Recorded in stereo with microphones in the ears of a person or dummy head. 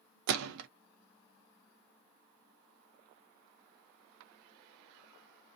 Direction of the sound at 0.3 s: 85° right.